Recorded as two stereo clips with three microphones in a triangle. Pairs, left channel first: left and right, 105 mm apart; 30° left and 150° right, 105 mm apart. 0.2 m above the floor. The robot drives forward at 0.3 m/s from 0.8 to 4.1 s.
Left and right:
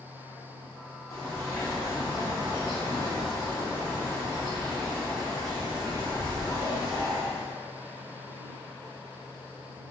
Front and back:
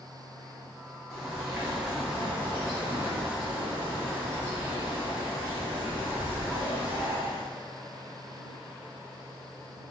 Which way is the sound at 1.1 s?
115° left.